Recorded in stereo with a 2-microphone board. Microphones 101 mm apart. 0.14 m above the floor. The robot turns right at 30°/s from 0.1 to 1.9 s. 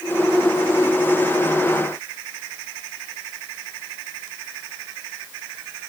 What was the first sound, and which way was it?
Only background noise.